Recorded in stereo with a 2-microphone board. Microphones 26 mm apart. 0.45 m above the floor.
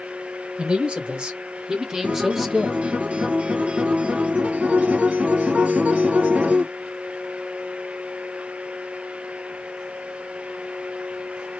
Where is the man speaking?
45° right (ahead or behind), 2 m; by 3.0 s 10° left (ahead or behind), 1.4 m.